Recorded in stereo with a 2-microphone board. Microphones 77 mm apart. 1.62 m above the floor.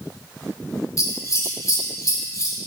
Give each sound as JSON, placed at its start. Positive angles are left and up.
{"t": 1.0, "sound": "scissors", "side_deg": 45, "distance_m": 5.0}